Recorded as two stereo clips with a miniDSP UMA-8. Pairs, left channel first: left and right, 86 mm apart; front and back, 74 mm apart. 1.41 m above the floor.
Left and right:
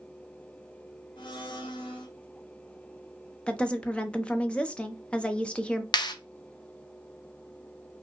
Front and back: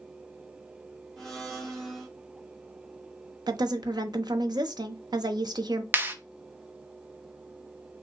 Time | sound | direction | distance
1.2 | a blender | 85° left | 1.2 m
3.5 | a woman speaking | 165° left | 0.8 m
5.9 | a clap | 120° left | 0.7 m